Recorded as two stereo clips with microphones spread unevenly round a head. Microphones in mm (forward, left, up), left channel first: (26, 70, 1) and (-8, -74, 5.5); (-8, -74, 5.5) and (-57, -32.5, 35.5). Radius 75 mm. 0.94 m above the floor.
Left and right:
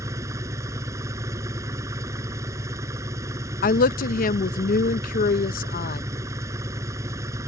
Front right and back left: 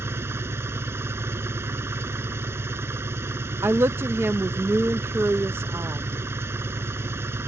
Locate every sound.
0.0 s an engine running: 175° right
3.6 s a woman speaking: 65° left